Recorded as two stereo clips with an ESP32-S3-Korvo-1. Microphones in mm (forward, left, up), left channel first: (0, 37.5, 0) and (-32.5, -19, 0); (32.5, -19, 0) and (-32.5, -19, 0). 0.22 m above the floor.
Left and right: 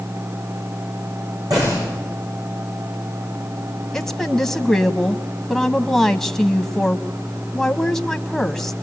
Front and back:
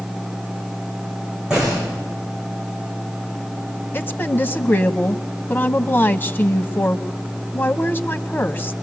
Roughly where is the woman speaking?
Ahead.